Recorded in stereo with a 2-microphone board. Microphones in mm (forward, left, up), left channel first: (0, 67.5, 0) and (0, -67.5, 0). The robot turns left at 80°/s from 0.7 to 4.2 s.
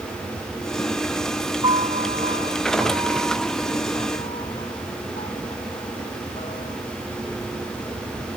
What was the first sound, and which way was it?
A piano, 35° right (ahead or behind).